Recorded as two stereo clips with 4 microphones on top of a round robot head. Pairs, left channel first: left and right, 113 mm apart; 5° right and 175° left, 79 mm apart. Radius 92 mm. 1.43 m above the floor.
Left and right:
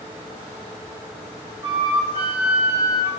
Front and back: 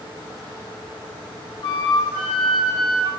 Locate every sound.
1.6 s a flute: 40° right, 5 m